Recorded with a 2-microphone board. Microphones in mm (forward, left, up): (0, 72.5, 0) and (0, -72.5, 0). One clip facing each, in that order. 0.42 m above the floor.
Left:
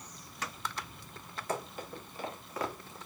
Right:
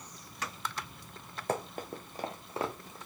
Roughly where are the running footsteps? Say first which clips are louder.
Right 3 dB; right.